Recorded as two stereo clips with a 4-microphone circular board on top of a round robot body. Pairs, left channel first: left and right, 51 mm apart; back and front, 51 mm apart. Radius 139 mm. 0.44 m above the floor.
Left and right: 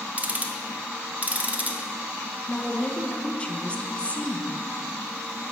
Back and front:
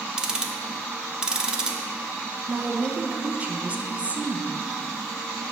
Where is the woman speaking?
40° left, 0.8 m.